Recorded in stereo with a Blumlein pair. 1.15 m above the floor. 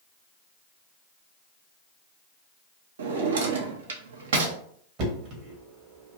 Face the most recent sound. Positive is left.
turn(degrees=-40)